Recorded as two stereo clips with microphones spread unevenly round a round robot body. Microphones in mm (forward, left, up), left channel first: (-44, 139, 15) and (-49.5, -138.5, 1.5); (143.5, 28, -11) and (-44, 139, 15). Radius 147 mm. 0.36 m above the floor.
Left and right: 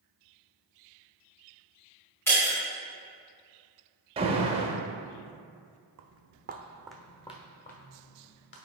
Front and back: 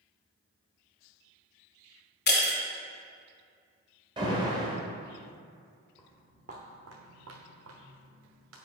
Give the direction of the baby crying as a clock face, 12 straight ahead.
No baby crying in this recording.